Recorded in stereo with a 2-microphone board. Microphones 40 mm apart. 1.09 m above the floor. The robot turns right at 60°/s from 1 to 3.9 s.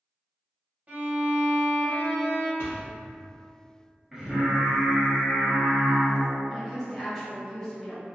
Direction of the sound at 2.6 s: 60° left (ahead or behind).